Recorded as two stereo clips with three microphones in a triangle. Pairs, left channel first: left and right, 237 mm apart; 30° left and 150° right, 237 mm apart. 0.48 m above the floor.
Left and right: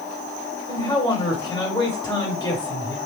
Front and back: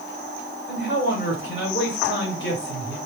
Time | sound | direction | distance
0.7 | a man speaking | 25° left | 1.5 m